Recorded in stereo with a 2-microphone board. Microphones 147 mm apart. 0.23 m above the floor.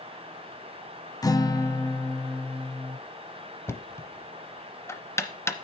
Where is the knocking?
15° left (ahead or behind), 0.7 m.